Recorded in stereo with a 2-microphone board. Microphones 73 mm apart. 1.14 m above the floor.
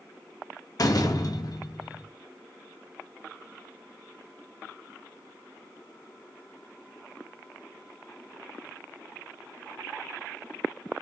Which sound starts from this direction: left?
A door slam, at 0.8 s.